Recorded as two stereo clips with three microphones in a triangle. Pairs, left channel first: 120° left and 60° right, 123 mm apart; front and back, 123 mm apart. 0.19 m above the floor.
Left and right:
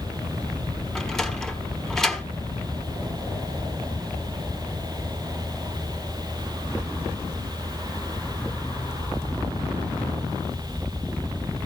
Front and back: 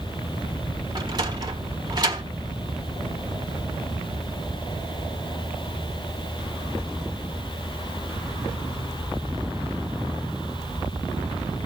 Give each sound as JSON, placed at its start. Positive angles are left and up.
{"t": 0.9, "sound": "a sliding door", "azimuth_deg": -160, "distance_m": 1.4}